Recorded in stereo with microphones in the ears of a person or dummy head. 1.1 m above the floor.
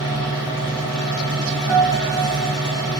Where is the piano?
Centre (ahead or behind), 1.4 m.